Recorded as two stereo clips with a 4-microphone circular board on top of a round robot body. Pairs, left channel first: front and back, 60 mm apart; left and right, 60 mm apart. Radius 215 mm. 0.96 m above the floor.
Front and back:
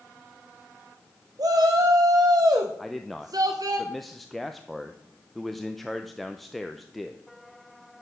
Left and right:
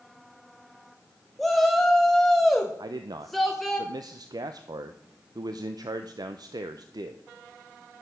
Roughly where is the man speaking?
Right.